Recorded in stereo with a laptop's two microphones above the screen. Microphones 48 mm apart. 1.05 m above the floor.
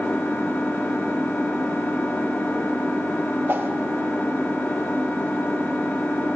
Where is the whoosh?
50° right (ahead or behind), 0.6 m.